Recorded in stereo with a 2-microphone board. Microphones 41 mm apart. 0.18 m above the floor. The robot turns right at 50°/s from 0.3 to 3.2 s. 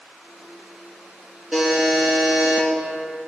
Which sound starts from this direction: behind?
A buzzer, at 1.5 s.